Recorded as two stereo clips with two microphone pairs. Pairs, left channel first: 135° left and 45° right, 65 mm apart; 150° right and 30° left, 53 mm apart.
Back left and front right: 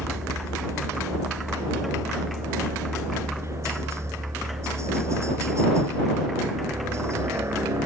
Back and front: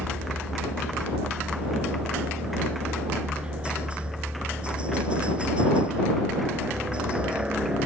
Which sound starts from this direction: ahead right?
A helicopter, at 0.0 s.